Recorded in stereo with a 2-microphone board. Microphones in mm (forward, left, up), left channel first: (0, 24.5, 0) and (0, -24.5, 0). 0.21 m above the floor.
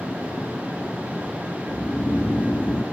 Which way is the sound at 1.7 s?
35° left (ahead or behind).